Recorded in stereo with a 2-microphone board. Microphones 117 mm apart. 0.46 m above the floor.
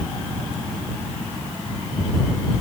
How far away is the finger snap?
No finger snap in this recording.